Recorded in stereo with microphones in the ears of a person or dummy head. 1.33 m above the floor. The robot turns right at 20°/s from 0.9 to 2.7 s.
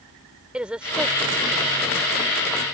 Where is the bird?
I don't hear a bird.